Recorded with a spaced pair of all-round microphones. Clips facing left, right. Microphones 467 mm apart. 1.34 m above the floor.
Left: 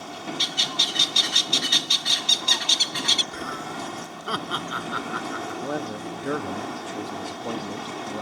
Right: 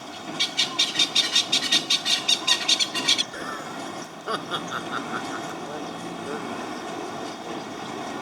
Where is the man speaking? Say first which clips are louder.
Left 4 dB; 85° left.